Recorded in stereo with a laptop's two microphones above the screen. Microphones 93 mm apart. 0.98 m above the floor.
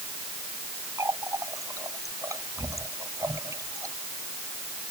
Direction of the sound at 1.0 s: 35° right (ahead or behind).